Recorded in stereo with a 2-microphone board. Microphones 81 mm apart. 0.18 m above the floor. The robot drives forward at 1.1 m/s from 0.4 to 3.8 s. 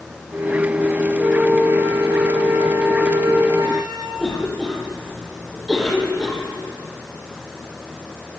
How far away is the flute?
About 4 m.